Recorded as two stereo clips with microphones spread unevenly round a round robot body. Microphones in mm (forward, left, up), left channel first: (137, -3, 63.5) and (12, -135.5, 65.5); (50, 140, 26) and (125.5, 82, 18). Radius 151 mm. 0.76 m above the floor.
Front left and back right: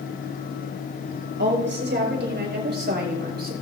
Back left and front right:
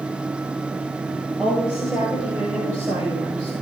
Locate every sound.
1.4 s a woman speaking: 125° right, 6 m; by 3.5 s 105° right, 5.5 m